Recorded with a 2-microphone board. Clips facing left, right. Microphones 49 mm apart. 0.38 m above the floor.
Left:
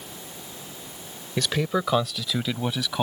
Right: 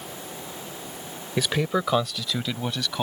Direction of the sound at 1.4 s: 10° right (ahead or behind).